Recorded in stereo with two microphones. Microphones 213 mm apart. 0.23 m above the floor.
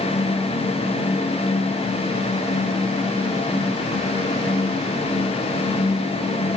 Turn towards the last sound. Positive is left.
No sound to turn to.